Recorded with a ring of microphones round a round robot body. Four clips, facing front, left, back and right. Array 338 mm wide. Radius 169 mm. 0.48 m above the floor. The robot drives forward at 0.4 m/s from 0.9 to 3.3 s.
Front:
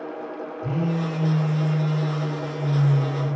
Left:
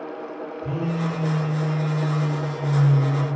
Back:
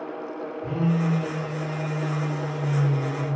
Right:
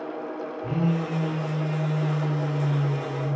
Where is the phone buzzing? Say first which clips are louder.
Even, back 1 dB; 25° left, 1.1 m; by 3.3 s 105° left, 0.7 m.